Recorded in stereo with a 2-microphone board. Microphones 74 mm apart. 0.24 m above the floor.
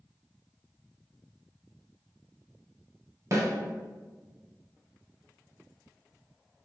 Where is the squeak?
I don't hear a squeak.